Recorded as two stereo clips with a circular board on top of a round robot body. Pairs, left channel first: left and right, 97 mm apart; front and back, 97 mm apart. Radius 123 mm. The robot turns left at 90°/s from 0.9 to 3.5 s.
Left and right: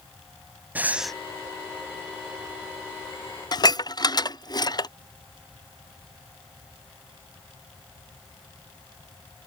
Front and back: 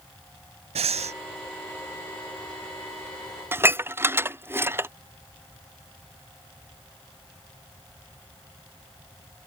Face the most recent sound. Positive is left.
turn(degrees=120)